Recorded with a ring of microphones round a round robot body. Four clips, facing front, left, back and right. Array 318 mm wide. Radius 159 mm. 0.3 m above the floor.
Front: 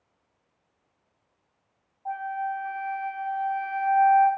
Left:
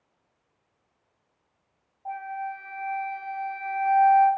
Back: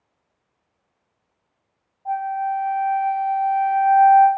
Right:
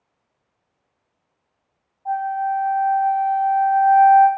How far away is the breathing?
I don't hear breathing.